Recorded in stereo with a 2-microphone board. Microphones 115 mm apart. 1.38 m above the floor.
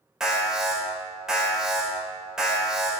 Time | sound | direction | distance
0.2 | an alarm | 5° right (ahead or behind) | 5.5 m